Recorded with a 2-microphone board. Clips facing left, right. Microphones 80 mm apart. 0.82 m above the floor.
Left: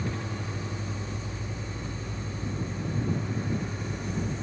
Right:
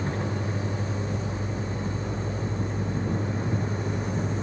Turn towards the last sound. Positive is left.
turn(degrees=-40)  # may be behind; listen again after turning